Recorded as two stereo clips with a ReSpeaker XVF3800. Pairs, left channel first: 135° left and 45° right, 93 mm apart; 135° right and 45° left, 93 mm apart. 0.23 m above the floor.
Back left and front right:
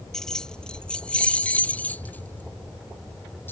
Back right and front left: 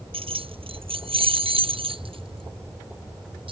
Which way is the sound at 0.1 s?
50° left.